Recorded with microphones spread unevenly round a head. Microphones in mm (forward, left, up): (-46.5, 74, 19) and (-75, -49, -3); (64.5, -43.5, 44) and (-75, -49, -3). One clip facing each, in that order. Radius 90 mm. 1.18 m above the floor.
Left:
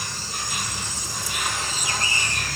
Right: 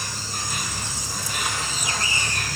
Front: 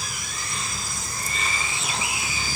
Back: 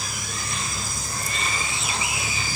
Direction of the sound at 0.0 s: 155° right.